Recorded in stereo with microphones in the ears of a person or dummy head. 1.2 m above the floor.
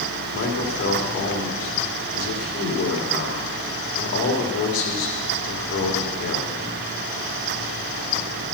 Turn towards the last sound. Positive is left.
turn(degrees=80)